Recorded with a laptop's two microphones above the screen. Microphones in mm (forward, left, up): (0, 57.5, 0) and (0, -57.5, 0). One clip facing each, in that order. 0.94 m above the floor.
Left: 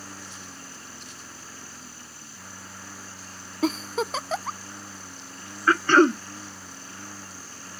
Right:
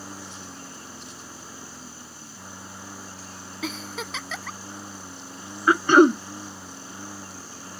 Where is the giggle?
40° left (ahead or behind).